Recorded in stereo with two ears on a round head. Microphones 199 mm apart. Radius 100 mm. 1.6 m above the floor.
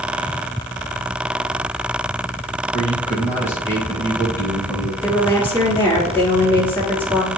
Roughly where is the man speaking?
Centre.